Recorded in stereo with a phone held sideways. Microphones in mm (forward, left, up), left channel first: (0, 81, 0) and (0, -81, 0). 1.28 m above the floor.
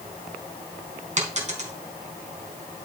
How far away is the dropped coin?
About 3 m.